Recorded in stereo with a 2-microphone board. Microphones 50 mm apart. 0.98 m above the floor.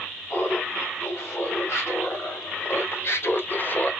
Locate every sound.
0.3 s laughter: 50° left (ahead or behind), 3 m; by 3.9 s 30° left (ahead or behind), 0.8 m